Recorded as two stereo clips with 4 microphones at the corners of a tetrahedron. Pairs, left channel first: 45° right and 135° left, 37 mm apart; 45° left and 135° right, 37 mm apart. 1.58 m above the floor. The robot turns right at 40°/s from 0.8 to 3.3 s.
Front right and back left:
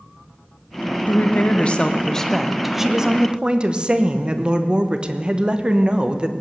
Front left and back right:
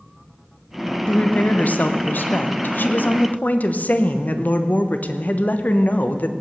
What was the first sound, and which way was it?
A woman speaking, 15° right.